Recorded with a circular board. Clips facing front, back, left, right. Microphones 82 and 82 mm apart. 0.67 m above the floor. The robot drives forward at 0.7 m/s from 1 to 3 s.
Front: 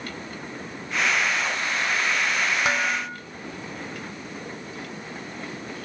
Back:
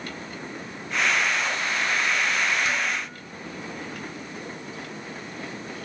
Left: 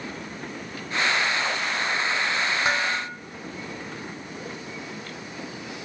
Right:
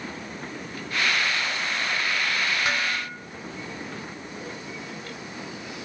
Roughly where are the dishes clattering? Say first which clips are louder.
Front 3 dB, left 2 dB; ahead left.